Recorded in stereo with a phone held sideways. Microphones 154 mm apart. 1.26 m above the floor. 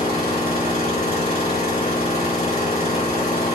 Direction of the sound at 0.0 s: 75° left (ahead or behind).